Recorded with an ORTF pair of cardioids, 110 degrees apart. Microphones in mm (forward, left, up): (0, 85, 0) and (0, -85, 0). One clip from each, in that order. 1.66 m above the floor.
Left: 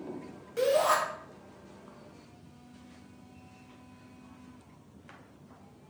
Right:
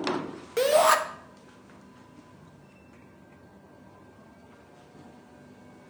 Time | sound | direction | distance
0.6 | a shout | 50° right | 0.5 m